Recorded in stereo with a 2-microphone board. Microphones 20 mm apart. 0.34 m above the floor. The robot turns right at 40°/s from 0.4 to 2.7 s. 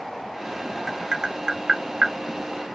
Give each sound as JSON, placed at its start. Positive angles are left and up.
{"t": 0.9, "sound": "tapping", "side_deg": -30, "distance_m": 0.7}